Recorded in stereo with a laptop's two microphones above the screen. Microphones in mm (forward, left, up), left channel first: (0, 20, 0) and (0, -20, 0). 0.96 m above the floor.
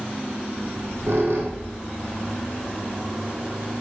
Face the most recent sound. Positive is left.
turn(degrees=-75)  # may be behind; listen again after turning